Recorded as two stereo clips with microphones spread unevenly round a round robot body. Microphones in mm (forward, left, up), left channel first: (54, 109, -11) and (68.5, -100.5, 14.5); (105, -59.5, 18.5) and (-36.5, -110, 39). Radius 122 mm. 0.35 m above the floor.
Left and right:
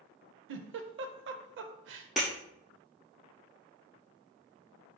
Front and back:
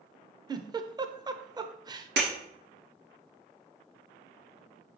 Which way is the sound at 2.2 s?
175° right.